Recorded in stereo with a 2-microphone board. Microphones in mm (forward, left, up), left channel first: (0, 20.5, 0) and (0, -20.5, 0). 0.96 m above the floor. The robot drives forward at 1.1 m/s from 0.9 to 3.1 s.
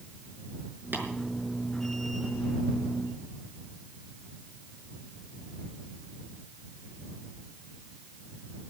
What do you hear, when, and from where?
0.9 s tapping: 60° right (ahead or behind), 6 m; by 1.1 s 65° right (ahead or behind), 5.5 m